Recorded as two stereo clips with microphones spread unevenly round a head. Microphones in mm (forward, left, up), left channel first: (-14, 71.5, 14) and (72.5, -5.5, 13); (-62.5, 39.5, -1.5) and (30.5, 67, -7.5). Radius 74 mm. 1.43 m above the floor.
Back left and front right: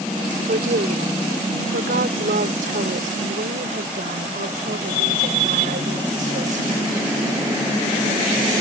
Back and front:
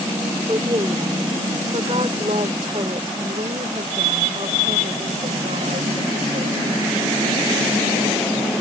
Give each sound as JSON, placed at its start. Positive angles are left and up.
{"t": 0.5, "sound": "a woman speaking", "azimuth_deg": -50}